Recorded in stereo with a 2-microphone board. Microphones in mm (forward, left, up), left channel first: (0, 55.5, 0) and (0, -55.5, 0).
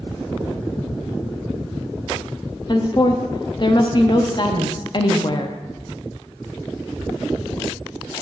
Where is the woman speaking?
45° left (ahead or behind), 0.6 m.